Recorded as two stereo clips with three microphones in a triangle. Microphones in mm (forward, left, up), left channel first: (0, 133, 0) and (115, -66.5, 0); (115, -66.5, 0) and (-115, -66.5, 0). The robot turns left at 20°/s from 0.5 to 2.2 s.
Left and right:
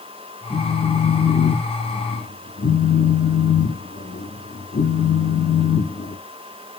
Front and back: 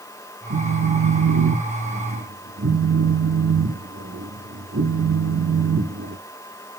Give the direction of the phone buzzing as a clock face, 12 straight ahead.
5 o'clock.